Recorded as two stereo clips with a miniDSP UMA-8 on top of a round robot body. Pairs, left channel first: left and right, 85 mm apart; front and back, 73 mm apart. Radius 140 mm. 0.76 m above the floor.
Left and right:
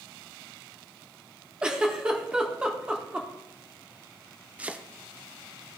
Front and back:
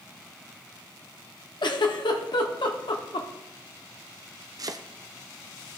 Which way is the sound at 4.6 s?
160° right.